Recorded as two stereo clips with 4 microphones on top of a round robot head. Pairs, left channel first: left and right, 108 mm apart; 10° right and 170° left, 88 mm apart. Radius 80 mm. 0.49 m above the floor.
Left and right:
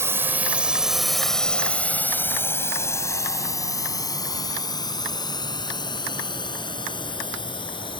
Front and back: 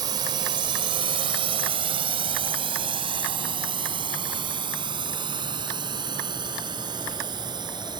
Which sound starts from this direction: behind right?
A drone, at 0.0 s.